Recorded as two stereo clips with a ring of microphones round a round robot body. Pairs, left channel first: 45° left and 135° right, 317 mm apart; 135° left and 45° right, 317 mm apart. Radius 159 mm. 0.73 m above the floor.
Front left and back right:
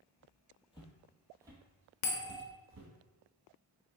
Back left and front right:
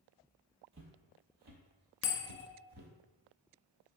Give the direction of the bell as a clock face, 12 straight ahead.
9 o'clock.